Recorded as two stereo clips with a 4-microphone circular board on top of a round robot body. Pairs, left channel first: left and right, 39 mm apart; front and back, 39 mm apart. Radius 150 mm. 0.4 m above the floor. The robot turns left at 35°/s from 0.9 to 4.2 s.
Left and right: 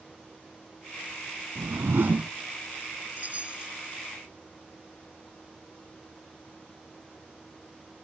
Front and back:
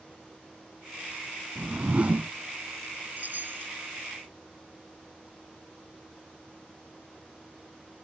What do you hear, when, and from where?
1.6 s a whoosh: 110° right; by 2.3 s 135° right
3.2 s a chime: 135° right; by 3.7 s 155° right